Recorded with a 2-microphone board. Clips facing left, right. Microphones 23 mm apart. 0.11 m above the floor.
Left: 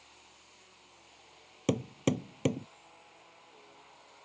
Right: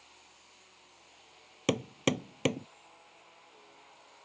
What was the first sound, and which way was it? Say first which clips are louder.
Hammering: right 1 dB; 35° right (ahead or behind).